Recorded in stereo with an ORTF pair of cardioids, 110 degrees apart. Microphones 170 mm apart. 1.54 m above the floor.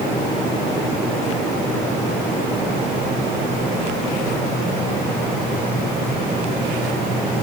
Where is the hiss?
No hiss in this recording.